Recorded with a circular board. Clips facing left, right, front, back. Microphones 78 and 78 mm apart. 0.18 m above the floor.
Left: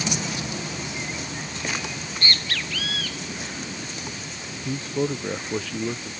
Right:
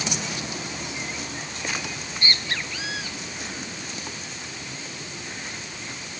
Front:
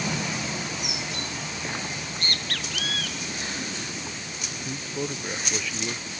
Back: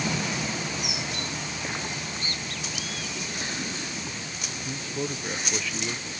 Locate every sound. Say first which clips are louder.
1.9 s a bird: left 1 dB, front 1 dB; 20° right
4.7 s a man speaking: left 12 dB, even; 90° left